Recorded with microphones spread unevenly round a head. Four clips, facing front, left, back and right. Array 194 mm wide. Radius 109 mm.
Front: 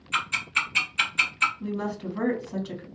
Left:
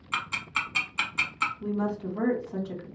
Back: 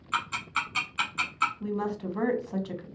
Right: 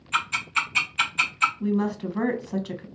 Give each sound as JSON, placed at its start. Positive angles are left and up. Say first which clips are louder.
{"t": 0.1, "sound": "ticking", "louder": "right 5 dB, front 1 dB", "azimuth_deg": 105, "distance_m": 0.9}
{"t": 1.6, "sound": "a woman speaking", "louder": "right 4 dB, even", "azimuth_deg": -90, "distance_m": 1.0}